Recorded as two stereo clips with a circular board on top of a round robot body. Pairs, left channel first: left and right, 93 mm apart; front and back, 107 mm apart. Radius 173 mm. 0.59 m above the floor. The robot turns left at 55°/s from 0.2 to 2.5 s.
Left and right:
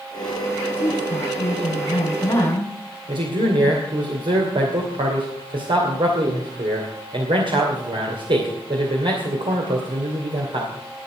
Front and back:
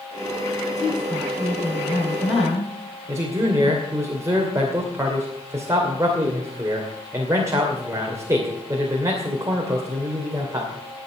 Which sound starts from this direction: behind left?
A woman speaking, at 0.8 s.